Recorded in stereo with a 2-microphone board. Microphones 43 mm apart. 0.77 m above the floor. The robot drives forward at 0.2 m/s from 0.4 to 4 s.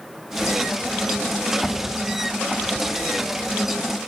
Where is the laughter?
No laughter in this recording.